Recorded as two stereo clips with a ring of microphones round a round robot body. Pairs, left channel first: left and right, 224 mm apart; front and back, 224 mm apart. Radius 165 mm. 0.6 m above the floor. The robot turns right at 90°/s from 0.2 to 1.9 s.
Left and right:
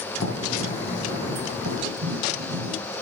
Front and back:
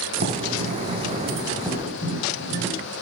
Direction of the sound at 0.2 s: 140° left.